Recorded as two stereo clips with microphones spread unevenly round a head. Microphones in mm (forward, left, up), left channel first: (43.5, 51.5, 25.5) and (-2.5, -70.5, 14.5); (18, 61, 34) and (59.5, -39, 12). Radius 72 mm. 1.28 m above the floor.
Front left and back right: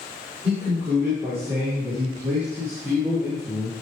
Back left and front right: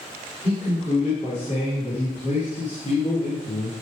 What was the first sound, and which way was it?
A man speaking, 175° left.